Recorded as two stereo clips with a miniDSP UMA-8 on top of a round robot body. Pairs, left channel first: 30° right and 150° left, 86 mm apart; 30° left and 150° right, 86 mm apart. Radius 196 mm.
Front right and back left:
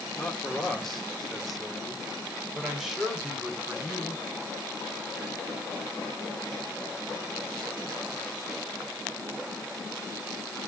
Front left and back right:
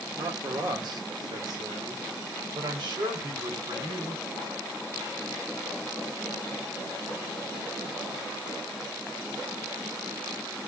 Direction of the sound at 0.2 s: 110° right.